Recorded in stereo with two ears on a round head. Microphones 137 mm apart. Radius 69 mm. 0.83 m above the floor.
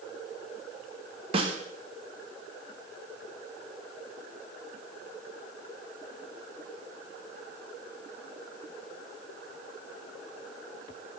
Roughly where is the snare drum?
Right.